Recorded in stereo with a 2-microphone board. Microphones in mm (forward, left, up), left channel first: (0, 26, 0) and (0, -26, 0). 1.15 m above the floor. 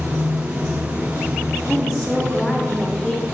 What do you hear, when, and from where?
0.0 s running water: 80° right, 1.8 m
1.7 s a woman speaking: centre (ahead or behind), 0.7 m